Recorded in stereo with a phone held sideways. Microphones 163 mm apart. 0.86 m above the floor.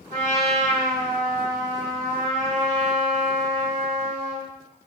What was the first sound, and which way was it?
A trumpet, 55° right (ahead or behind).